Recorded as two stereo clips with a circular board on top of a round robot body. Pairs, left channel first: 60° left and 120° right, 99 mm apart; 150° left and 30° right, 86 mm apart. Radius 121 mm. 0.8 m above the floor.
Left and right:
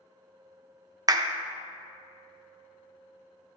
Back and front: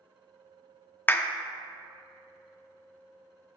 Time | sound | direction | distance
1.1 | a clap | 150° right | 0.5 m